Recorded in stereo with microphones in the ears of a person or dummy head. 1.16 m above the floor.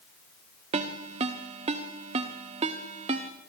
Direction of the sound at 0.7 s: 20° right (ahead or behind).